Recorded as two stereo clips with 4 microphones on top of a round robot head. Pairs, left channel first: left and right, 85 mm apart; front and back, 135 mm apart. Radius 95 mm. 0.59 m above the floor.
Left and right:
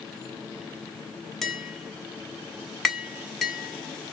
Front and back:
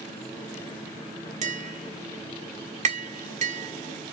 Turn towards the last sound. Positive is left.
turn(degrees=175)